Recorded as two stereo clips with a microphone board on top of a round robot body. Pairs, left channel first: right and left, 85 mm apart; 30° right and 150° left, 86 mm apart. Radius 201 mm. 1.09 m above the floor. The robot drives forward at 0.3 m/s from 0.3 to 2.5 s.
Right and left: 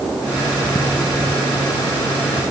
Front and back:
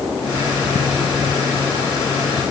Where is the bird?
No bird in this recording.